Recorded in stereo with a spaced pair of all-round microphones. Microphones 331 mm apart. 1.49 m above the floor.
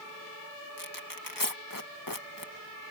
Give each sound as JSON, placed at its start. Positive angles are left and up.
{"t": 0.8, "sound": "tearing paper", "side_deg": 80}